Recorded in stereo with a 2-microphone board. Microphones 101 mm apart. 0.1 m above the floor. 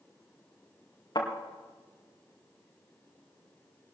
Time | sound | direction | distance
1.1 | a thud | 45° left (ahead or behind) | 5 m